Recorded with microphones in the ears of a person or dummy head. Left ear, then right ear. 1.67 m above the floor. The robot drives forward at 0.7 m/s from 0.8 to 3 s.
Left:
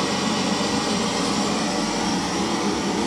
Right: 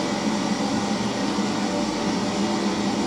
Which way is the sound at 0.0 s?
60° left (ahead or behind).